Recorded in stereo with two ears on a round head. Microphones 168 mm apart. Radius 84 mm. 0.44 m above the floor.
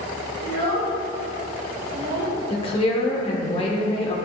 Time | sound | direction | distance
0.4 | a child speaking | 65° right (ahead or behind) | 1.8 m
2.5 | a woman speaking | 30° left (ahead or behind) | 1.0 m